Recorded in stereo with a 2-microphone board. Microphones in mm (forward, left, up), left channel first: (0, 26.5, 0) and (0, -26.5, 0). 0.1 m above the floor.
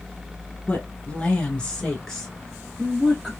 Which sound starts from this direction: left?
A woman speaking, at 0.7 s.